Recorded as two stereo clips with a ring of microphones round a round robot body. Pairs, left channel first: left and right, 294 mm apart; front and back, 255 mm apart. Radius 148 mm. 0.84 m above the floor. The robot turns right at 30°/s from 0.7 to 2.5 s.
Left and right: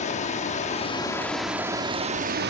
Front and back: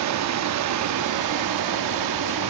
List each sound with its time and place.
0.0 s running water: 160° left, 0.8 m; by 2.5 s 150° right, 0.8 m